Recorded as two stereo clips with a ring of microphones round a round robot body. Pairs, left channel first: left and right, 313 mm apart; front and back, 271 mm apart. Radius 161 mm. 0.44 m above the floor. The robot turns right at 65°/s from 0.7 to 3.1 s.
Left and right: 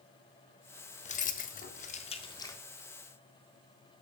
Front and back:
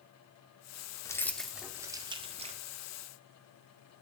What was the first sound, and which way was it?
Keys jangling, 60° left.